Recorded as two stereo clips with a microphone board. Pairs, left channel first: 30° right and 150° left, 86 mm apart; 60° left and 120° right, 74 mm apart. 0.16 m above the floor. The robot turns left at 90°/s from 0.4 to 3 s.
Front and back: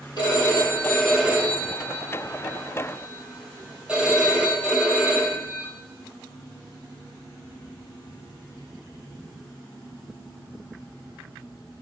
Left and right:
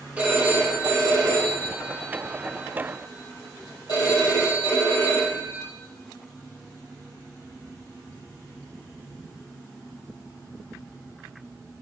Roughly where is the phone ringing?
Ahead right.